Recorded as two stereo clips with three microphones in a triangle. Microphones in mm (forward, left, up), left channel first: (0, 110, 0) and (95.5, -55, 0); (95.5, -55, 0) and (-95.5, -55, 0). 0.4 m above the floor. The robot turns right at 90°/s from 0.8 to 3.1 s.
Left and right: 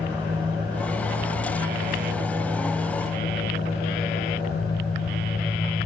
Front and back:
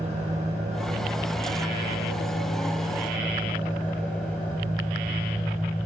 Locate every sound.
0.0 s an engine running: 125° right, 8.5 m; by 5.9 s 85° left, 8.5 m